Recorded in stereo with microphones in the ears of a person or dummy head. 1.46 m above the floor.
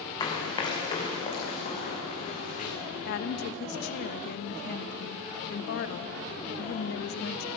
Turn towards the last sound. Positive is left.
turn(degrees=60)  # may be behind; listen again after turning